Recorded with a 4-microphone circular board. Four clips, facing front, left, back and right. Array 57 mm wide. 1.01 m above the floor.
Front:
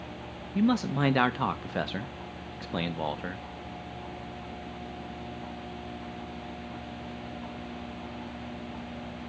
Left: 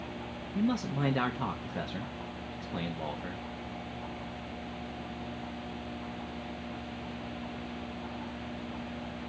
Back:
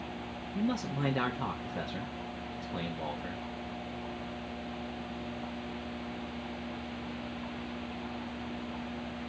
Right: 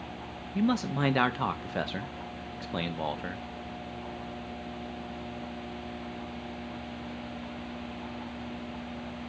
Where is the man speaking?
35° right, 0.8 m.